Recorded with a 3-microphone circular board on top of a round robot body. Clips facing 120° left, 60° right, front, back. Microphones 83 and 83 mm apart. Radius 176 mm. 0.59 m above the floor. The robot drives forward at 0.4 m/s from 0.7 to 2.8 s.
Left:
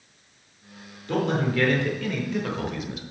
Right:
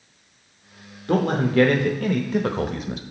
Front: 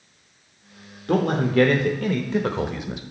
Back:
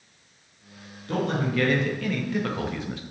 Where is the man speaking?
25° right, 1.2 m; by 3.0 s 65° right, 0.8 m.